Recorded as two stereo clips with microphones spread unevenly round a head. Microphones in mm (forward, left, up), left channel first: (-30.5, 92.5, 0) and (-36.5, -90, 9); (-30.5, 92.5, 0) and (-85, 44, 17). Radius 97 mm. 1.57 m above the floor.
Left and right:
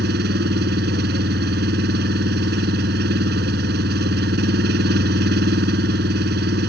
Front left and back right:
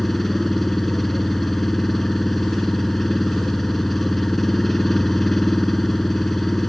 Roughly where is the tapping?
I don't hear tapping.